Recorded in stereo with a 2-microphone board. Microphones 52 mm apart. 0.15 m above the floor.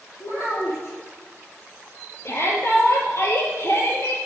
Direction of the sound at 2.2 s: 55° left (ahead or behind).